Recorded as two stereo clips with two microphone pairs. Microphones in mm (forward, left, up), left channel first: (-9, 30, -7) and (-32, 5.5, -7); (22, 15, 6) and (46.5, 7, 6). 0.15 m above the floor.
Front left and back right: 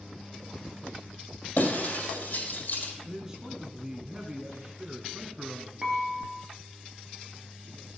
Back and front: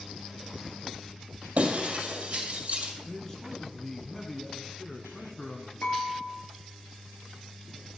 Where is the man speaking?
165° right, 1.1 m.